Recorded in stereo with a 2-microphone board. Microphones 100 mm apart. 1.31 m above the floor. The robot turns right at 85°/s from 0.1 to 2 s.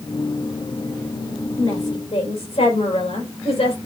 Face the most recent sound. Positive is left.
turn(degrees=100)